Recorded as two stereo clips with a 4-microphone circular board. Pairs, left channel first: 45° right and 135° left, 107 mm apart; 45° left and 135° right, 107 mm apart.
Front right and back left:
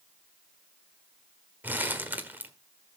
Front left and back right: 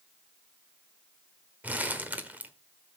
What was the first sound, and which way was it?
Crumpling, 175° left.